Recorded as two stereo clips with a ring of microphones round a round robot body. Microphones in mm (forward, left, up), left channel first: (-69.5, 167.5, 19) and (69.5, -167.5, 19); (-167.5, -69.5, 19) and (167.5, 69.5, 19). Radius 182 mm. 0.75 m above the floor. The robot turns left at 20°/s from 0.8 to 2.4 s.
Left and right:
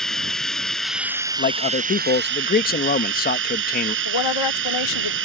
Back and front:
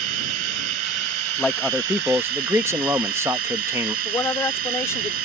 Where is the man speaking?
115° left; by 4.0 s 95° left.